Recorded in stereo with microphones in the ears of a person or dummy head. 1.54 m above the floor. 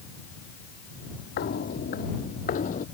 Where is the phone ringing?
No phone ringing in this recording.